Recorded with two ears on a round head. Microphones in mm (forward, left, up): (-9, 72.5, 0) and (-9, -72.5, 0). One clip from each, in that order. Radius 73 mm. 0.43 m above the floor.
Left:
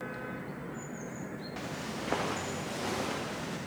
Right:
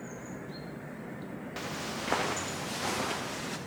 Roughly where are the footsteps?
Right.